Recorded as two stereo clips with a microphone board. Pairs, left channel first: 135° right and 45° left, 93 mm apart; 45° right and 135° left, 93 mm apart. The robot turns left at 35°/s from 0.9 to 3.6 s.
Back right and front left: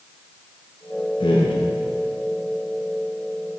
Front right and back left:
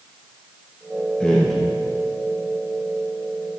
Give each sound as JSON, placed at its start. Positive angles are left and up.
{"t": 1.2, "sound": "a man speaking", "azimuth_deg": -125, "distance_m": 1.1}